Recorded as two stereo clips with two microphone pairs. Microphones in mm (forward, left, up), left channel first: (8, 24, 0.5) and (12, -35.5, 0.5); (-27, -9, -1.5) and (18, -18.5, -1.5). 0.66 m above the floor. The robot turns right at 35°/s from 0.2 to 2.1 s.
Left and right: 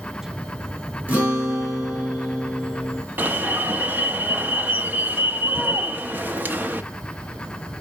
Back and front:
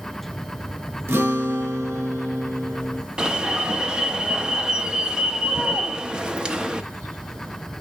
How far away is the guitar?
About 4 m.